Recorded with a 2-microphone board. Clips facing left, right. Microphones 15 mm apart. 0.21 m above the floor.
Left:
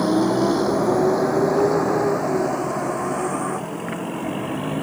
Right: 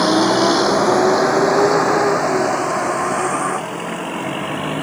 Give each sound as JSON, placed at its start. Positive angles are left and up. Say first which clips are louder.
{"t": 0.0, "sound": "a vehicle", "louder": "right 5 dB", "side_deg": -85}